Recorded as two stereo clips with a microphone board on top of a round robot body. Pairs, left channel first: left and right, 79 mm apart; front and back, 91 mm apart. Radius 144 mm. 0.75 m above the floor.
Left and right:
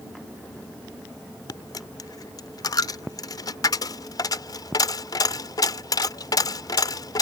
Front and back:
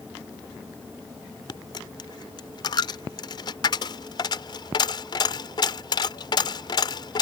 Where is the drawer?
No drawer in this recording.